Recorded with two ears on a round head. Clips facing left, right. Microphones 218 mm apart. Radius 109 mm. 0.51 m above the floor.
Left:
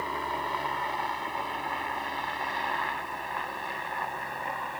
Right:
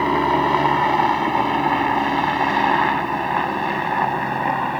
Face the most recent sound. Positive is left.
turn(degrees=-70)  # may be behind; listen again after turning